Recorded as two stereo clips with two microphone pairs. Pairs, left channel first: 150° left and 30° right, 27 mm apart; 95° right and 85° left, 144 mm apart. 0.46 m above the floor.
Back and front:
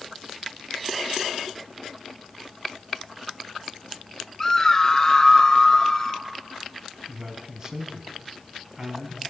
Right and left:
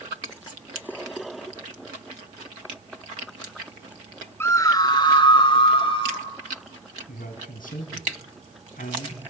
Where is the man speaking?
90° right, 3 m.